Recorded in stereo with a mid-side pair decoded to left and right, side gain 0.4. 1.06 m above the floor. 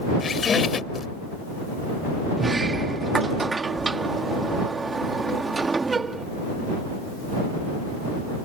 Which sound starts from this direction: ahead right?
A sliding door, at 2.4 s.